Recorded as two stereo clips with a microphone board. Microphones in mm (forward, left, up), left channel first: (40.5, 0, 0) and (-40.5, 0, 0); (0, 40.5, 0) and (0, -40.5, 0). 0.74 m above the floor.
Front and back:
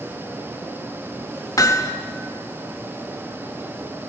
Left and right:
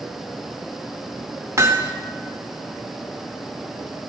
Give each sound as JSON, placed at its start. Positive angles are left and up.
{"t": 1.6, "sound": "hammering", "azimuth_deg": -40, "distance_m": 2.0}